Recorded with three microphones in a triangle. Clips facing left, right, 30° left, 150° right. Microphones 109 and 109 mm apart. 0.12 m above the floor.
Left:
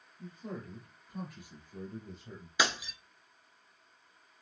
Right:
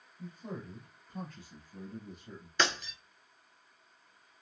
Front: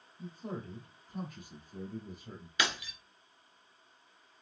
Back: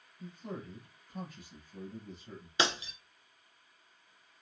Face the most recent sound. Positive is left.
turn(degrees=170)